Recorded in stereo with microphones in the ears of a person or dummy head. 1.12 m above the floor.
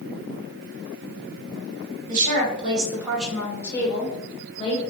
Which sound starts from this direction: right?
A woman speaking, at 2.1 s.